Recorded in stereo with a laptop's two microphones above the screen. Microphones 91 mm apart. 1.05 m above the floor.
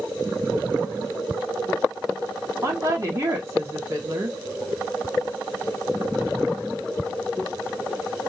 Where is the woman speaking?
35° right (ahead or behind), 1.9 m.